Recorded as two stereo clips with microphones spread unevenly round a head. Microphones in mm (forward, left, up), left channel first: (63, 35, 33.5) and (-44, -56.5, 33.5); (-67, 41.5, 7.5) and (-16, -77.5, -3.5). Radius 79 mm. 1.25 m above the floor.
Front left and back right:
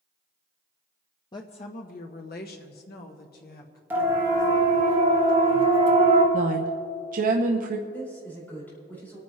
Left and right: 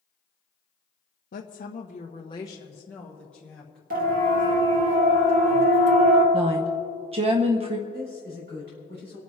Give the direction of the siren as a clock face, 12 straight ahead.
2 o'clock.